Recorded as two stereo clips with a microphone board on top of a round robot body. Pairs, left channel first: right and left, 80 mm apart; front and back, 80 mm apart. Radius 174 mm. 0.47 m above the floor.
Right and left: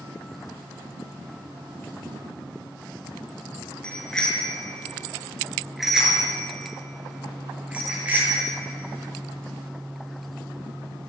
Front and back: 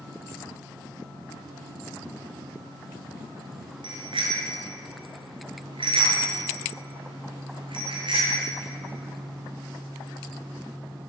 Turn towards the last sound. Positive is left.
turn(degrees=160)